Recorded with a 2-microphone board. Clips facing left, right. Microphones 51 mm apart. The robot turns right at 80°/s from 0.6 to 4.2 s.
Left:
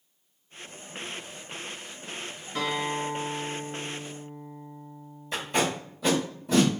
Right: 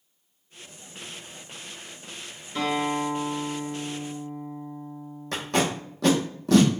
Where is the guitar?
145° left, 1.8 m; by 6.0 s 85° right, 1.8 m.